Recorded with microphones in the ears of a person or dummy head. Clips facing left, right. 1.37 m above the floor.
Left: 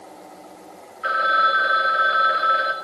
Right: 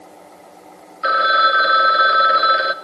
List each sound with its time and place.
1.0 s a phone ringing: 70° right (ahead or behind), 0.6 m